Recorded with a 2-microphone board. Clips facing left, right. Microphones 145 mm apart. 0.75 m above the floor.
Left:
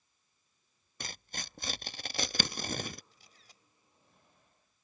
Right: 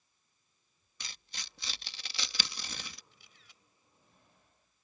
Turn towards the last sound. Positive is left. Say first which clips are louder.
# left 1 dB
turn(degrees=40)  # may be behind; listen again after turning